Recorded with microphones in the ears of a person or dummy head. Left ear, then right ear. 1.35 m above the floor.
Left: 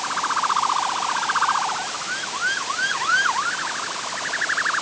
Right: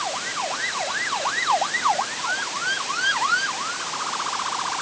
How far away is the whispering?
I don't hear whispering.